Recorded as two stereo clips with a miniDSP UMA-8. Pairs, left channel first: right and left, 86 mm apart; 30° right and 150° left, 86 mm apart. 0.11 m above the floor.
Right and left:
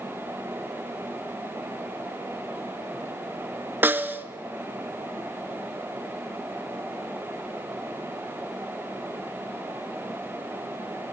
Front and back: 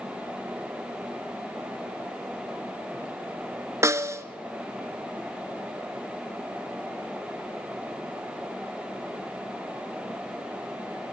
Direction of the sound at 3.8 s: 140° left.